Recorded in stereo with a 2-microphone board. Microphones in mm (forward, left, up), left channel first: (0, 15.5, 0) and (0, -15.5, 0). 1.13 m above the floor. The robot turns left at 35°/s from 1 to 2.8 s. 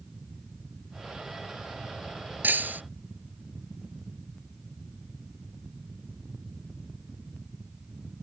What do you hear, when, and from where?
2.4 s breaking glass: 85° right; by 2.8 s 80° right